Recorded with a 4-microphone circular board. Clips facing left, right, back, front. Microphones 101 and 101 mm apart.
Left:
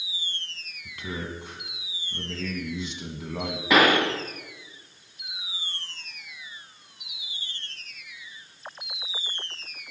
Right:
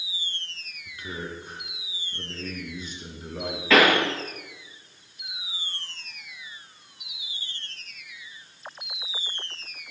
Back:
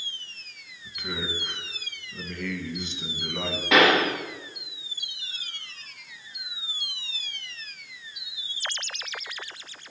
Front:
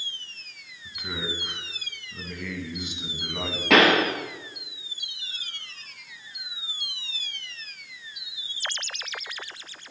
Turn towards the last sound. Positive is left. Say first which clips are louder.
# right 1 dB, front 1 dB
turn(degrees=15)